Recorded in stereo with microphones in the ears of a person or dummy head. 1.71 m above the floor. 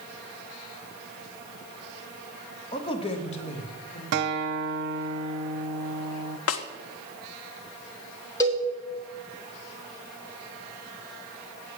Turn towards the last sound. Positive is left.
turn(degrees=20)  # may be behind; listen again after turning